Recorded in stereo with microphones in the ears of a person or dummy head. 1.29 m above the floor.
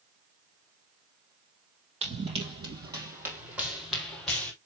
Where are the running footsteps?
30° right (ahead or behind), 3 m; by 4.5 s 10° left (ahead or behind), 3 m.